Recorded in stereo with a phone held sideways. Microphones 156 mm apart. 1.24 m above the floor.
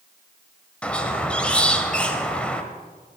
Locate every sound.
0.8 s a squeak: 5° left (ahead or behind), 1.4 m